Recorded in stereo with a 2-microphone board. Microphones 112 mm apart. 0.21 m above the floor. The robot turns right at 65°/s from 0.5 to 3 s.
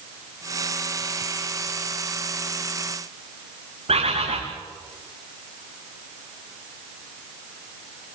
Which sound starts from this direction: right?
A bird, at 3.9 s.